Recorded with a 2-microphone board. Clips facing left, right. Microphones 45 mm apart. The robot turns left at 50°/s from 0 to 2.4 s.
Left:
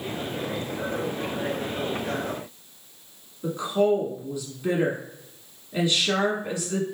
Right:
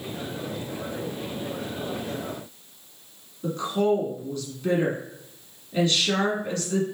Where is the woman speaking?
15° left (ahead or behind), 1.4 m.